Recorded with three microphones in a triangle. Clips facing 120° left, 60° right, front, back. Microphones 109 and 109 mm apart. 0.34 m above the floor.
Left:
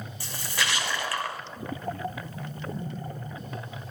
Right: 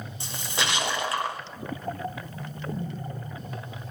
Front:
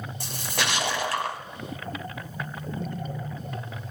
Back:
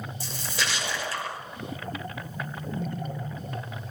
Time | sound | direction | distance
0.2 | a splash | 5° left | 2.0 m